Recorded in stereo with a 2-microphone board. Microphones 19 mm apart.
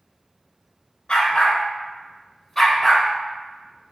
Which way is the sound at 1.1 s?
55° left (ahead or behind).